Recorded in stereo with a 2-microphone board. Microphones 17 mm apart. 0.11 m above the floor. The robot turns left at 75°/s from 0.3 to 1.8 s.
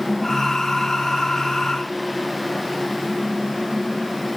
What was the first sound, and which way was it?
Only background noise.